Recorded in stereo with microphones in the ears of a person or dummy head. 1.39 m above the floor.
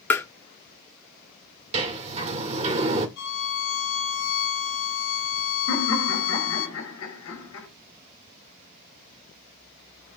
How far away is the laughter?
About 4.5 m.